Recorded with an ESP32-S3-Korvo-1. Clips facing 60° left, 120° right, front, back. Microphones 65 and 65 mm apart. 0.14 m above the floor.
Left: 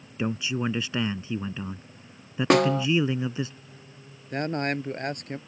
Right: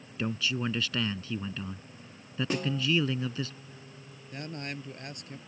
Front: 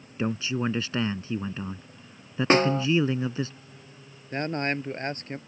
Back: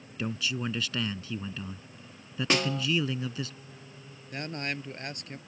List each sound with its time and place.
0.2 s a man speaking: 15° left
2.5 s a snare drum: 55° left
4.3 s a man speaking: 45° left